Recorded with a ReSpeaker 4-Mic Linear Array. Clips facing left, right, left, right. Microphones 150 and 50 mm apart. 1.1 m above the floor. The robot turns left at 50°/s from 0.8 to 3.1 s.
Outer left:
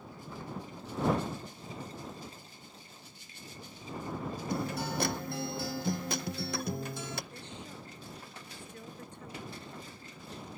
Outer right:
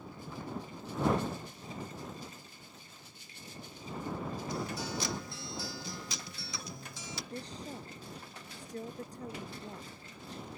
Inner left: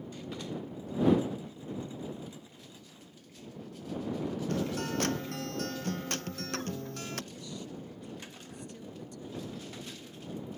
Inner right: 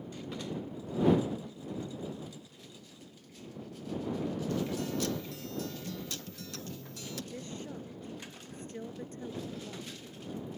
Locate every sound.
4.5 s a guitar: 60° left (ahead or behind)
7.3 s a woman speaking: 35° right (ahead or behind)